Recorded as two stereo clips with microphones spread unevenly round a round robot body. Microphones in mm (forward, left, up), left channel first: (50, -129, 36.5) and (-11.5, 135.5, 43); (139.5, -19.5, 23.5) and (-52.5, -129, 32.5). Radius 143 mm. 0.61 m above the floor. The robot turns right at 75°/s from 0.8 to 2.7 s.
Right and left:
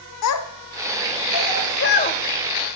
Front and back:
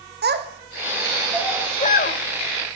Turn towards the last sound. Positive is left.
turn(degrees=35)